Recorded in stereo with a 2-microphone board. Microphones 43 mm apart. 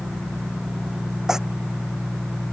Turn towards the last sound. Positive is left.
turn(degrees=-10)  # may be behind; listen again after turning